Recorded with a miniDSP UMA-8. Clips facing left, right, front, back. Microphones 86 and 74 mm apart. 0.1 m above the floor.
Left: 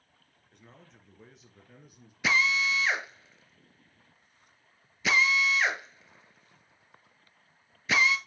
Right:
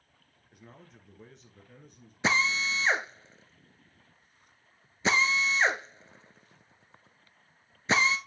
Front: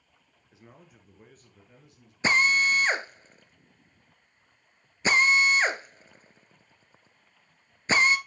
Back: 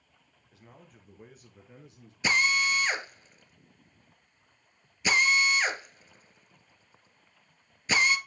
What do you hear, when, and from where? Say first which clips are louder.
0.5 s a man speaking: right 3 dB, front 1 dB; 20° right, 1.4 m; by 2.1 s 160° left, 1.5 m
2.2 s a drill: left 1 dB, front 3 dB; 45° right, 0.8 m